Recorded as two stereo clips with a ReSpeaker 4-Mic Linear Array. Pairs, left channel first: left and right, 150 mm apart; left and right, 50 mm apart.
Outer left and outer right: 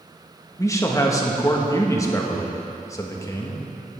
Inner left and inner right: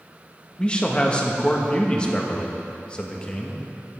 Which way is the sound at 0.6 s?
20° left (ahead or behind).